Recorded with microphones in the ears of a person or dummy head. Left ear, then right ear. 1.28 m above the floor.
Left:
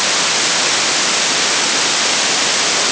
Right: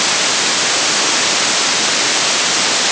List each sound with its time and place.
Only background noise.